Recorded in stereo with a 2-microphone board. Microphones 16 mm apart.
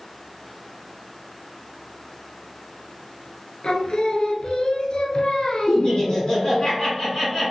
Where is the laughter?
40° left (ahead or behind), 1.5 m.